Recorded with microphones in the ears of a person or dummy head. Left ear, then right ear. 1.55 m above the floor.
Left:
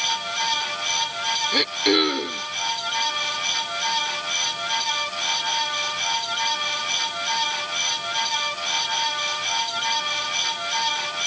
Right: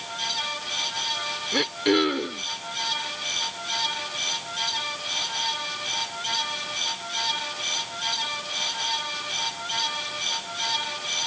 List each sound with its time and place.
1.5 s throat clearing: 20° left (ahead or behind)